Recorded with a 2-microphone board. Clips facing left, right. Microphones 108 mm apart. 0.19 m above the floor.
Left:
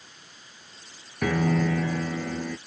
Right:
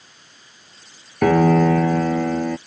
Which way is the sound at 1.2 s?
60° right (ahead or behind).